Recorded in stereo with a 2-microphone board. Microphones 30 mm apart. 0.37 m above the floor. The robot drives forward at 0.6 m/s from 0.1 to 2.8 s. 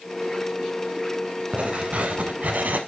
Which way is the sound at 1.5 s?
40° right (ahead or behind).